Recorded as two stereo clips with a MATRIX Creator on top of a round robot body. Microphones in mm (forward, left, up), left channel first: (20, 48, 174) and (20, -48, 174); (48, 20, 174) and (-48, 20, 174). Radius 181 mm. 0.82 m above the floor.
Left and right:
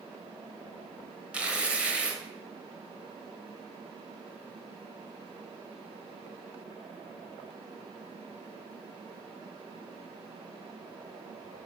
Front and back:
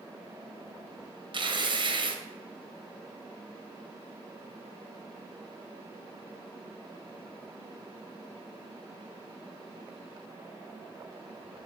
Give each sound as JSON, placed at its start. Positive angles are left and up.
{"t": 1.3, "sound": "tearing paper", "azimuth_deg": -165, "distance_m": 1.3}